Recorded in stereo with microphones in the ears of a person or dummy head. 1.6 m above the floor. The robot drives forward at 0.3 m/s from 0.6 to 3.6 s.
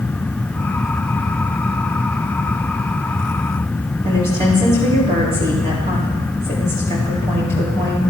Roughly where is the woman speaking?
Right.